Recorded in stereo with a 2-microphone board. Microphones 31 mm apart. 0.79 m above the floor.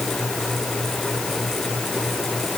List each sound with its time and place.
Only background noise.